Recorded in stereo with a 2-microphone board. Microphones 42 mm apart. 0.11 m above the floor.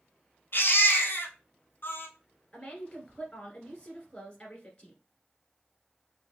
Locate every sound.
0.5 s a baby crying: 65° left (ahead or behind), 1.0 m
2.5 s a woman speaking: 20° left (ahead or behind), 1.5 m